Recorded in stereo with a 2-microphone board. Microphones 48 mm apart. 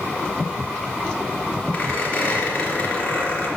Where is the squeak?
30° left (ahead or behind), 3 m.